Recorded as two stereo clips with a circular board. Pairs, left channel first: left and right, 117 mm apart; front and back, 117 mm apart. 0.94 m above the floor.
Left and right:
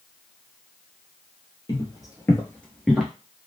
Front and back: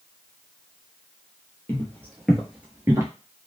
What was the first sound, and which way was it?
Footsteps, 60° left.